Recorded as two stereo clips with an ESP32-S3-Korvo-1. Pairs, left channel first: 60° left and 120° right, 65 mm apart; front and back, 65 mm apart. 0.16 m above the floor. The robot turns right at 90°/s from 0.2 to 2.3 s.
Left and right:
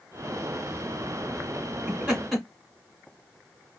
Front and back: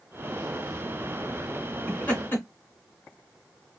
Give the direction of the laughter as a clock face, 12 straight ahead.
2 o'clock.